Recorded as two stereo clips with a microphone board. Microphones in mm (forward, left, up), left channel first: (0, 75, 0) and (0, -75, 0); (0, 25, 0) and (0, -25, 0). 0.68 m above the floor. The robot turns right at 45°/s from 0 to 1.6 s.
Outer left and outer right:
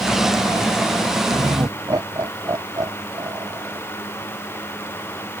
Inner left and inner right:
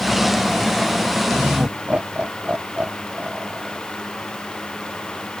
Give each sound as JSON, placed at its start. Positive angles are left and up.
{"t": 1.3, "sound": "laughter", "side_deg": -40}